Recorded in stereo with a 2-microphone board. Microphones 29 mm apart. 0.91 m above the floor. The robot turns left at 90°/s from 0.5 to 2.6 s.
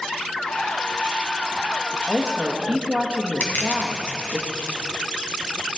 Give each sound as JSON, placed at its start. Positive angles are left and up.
{"t": 2.1, "sound": "a woman speaking", "azimuth_deg": -20, "distance_m": 1.2}
{"t": 3.4, "sound": "crushing", "side_deg": 70, "distance_m": 2.0}